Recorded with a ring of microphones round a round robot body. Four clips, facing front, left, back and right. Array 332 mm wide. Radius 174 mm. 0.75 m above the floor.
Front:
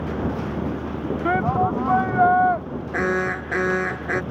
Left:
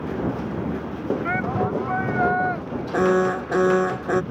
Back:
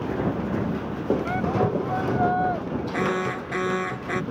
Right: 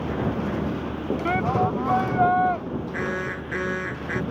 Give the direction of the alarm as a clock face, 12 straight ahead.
9 o'clock.